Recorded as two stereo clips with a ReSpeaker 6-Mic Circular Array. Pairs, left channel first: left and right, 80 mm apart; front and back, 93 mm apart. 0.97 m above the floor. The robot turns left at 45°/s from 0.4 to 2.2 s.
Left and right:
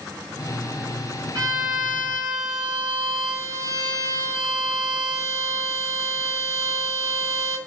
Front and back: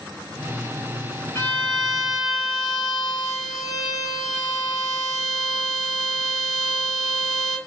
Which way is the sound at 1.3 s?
60° right.